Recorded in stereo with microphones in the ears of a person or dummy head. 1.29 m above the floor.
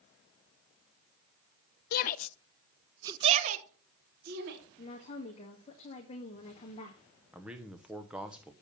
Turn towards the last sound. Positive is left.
turn(degrees=-5)  # may be behind; listen again after turning